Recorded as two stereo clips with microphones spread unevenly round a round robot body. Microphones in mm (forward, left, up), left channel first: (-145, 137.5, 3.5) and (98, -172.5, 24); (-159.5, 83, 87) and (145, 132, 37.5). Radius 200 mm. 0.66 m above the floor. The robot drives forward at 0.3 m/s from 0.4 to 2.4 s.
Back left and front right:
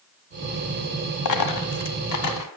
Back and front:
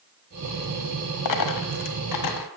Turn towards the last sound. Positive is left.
turn(degrees=175)